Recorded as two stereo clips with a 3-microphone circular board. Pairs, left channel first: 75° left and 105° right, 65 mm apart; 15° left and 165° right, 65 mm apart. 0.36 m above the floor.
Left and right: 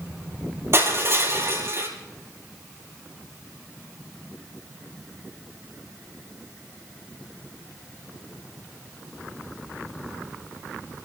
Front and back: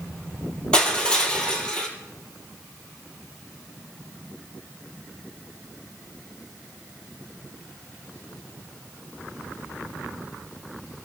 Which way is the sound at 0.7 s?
60° right.